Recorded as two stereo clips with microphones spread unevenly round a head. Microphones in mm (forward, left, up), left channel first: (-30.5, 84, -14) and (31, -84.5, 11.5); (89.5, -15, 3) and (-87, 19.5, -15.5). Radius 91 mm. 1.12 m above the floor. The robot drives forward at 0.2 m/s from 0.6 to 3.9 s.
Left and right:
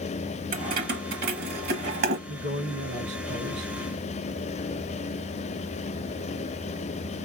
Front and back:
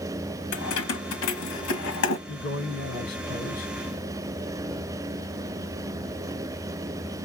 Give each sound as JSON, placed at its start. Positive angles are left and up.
{"t": 0.5, "sound": "keys jangling", "azimuth_deg": -25, "distance_m": 1.3}
{"t": 2.3, "sound": "a man speaking", "azimuth_deg": -35, "distance_m": 1.2}